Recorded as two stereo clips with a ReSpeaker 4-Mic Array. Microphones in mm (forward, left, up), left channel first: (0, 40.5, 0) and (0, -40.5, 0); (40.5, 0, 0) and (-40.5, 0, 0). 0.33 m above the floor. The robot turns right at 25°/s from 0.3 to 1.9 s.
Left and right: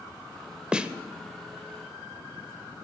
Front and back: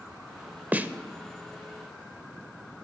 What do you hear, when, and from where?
0.7 s a snare drum: 150° right, 0.5 m; by 0.9 s 145° right, 0.5 m